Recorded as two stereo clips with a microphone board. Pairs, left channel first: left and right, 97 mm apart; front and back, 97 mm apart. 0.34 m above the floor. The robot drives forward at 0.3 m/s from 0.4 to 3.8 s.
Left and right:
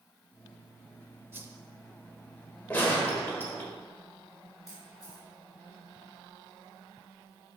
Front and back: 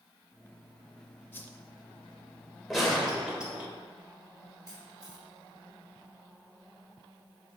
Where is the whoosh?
45° right, 0.6 m; by 1.5 s 55° right, 0.6 m.